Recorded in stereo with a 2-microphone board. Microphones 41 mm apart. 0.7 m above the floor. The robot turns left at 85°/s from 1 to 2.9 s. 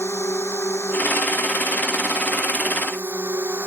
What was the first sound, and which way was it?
A drone, 90° left.